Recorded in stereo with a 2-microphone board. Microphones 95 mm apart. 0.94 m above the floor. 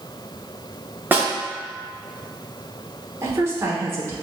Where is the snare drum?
20° right (ahead or behind), 1.0 m.